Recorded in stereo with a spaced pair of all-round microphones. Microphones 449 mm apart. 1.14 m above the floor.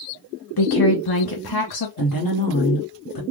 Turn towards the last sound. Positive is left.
turn(degrees=50)  # may be behind; listen again after turning